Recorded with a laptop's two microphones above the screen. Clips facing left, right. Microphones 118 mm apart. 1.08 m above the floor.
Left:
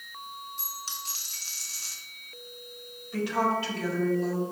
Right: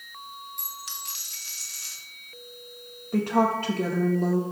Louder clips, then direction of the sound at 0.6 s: Even; 35° left (ahead or behind).